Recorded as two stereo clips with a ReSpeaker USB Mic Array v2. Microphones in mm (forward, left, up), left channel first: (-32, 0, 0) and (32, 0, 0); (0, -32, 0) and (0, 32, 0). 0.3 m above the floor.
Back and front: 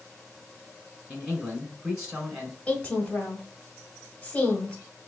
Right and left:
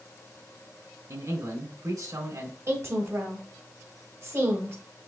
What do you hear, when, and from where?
1.1 s a man speaking: 80° left, 3 m
2.7 s a woman speaking: 115° left, 1.7 m